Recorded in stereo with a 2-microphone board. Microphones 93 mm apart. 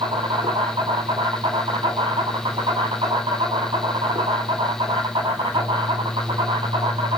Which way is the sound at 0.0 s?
65° right (ahead or behind).